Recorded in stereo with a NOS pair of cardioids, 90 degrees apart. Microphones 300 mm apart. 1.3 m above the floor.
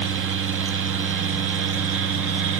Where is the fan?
45° right, 0.7 m.